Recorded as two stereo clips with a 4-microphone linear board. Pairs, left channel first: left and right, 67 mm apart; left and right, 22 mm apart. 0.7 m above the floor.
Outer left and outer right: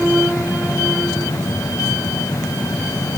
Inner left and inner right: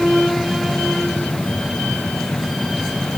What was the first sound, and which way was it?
Only background noise.